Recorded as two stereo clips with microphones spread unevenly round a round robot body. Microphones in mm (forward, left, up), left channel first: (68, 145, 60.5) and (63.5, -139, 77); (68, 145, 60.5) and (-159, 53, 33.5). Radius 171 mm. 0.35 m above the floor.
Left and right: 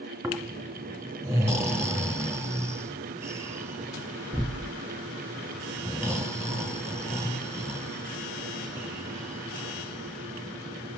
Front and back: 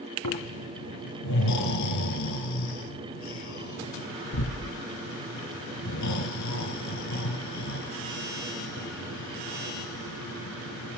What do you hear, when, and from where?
0.2 s snoring: 10° right, 4 m